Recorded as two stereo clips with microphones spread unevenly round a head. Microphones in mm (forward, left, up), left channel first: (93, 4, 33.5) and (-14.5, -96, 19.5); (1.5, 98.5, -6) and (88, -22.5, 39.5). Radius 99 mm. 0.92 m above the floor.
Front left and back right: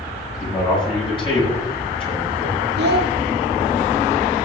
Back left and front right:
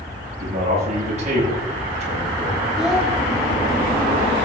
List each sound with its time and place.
0.4 s a man speaking: 10° right, 7 m
2.8 s a child speaking: 140° right, 1.1 m